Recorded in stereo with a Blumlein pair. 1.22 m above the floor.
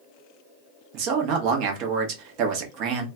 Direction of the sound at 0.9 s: 40° right.